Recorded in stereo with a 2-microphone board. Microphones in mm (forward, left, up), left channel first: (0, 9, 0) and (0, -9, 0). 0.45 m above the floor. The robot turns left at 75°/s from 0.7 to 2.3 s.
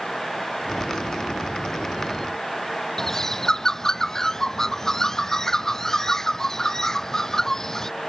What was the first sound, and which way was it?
A bird, 25° left (ahead or behind).